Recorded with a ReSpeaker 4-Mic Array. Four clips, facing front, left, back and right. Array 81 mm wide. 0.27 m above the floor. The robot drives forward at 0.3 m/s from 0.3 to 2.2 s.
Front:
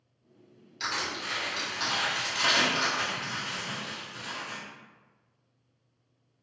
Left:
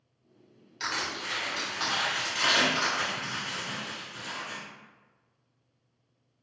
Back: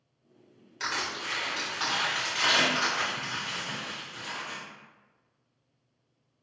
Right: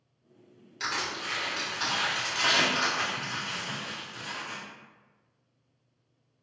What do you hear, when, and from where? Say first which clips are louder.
0.8 s crushing: even, even; 165° right, 1.5 m; by 4.6 s 175° right, 1.7 m